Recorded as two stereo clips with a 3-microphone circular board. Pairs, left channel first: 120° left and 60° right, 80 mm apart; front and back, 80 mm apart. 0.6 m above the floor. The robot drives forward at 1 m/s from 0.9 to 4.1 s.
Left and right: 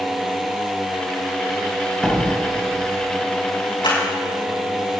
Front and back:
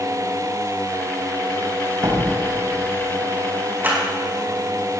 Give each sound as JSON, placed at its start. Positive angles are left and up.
{"t": 2.0, "sound": "a door slam", "azimuth_deg": -145, "distance_m": 3.5}
{"t": 3.8, "sound": "a clap", "azimuth_deg": 120, "distance_m": 5.0}